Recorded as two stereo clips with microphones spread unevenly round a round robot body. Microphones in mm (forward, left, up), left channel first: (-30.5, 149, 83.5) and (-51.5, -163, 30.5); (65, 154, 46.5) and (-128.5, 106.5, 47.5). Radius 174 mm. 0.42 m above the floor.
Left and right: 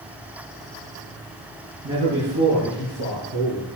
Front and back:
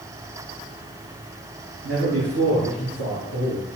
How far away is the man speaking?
About 5 m.